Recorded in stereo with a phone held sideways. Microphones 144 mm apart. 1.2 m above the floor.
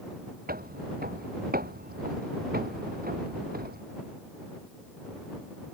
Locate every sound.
0.5 s footsteps: 75° right (ahead or behind); by 3.8 s 80° right